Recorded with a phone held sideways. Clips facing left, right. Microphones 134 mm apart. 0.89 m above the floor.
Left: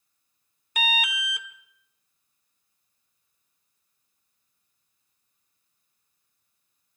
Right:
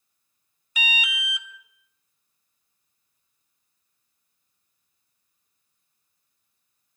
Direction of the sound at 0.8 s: 55° left (ahead or behind).